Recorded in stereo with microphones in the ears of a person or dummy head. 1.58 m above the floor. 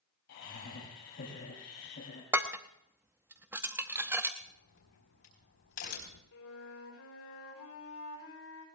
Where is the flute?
75° left (ahead or behind), 5.5 m.